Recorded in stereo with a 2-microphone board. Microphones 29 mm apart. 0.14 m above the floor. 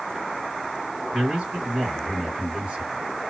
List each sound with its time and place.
1.1 s a man speaking: 50° right (ahead or behind), 2 m